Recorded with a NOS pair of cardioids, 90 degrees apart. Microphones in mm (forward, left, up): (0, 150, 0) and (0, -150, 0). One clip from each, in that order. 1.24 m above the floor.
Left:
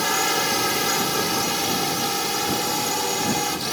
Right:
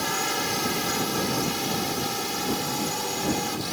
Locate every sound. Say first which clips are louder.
0.0 s a drone: left 5 dB; 40° left